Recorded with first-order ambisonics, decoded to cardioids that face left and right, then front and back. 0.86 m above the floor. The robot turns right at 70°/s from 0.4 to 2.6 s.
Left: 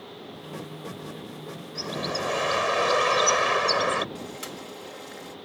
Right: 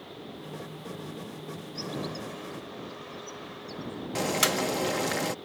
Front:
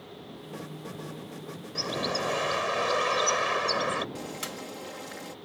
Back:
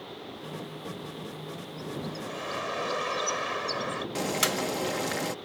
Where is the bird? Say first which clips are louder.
Left 7 dB, front 10 dB; 15° left; by 4.0 s 75° left.